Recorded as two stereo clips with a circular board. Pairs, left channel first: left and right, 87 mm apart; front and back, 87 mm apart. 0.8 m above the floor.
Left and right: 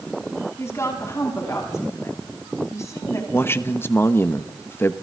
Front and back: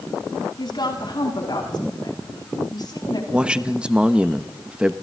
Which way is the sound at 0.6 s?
35° left.